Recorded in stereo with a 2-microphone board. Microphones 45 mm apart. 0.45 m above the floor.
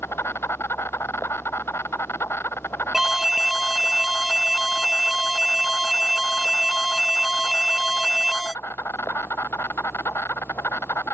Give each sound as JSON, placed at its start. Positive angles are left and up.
{"t": 0.0, "sound": "an insect", "side_deg": 70}
{"t": 2.9, "sound": "an alarm", "side_deg": -10}